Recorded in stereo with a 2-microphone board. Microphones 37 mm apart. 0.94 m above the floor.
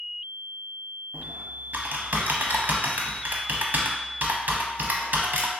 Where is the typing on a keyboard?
55° right (ahead or behind), 0.6 m.